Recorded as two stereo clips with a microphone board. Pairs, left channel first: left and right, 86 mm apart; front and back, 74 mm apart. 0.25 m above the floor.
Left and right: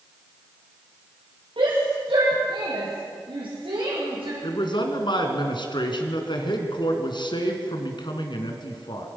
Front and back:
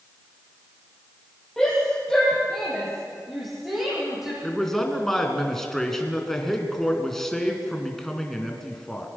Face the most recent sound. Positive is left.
turn(degrees=85)